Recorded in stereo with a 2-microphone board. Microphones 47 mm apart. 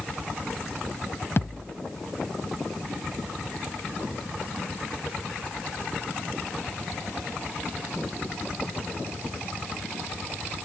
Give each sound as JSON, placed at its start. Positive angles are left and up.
{"t": 1.4, "sound": "a thud", "side_deg": 50, "distance_m": 0.7}